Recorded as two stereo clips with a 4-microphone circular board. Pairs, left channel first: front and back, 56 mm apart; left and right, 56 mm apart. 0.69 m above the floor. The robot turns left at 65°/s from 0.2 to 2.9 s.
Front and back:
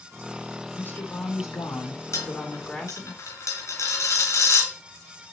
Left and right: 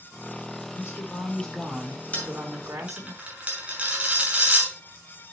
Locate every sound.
0.8 s a woman speaking: 60° left, 1.8 m; by 3.1 s 80° right, 1.8 m
2.1 s a dropped coin: 25° left, 2 m; by 5.3 s 25° right, 2 m